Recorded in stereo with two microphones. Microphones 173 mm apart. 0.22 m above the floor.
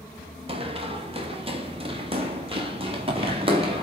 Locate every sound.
0.5 s running footsteps: 35° right (ahead or behind), 2.5 m; by 3.8 s 30° right (ahead or behind), 4.5 m